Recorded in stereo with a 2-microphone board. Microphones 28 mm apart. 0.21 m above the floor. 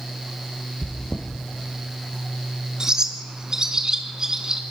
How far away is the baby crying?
No baby crying in this recording.